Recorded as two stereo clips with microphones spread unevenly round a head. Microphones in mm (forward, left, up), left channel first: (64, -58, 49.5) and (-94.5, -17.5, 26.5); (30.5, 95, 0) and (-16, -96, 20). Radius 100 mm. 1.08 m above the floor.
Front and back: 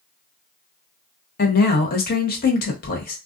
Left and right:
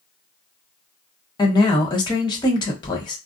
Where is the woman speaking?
15° left, 1.2 m.